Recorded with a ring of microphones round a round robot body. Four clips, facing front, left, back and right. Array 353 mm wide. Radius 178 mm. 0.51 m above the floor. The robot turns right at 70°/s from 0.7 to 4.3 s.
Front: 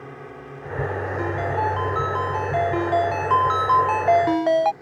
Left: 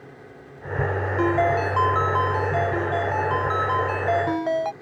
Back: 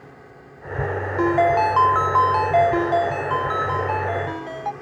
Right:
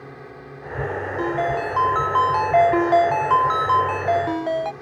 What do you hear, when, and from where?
0.0 s a drone: 35° right; by 4.8 s 140° right
1.2 s a ringtone: 145° left; by 4.7 s 5° left